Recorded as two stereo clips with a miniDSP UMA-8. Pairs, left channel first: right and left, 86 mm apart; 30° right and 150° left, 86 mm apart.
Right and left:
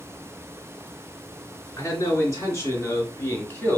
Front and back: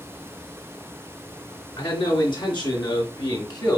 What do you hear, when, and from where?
1.8 s a man speaking: 40° right, 3 m; by 3.8 s 35° right, 1.6 m